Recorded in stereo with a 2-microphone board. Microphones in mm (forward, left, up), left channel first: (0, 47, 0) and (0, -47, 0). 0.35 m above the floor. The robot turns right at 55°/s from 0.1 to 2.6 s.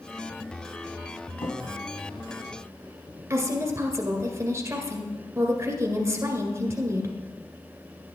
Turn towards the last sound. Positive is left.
turn(degrees=-30)  # may be behind; listen again after turning